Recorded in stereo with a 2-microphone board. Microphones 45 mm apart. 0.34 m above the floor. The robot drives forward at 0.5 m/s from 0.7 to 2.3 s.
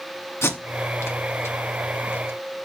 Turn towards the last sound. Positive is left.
turn(degrees=65)  # may be behind; listen again after turning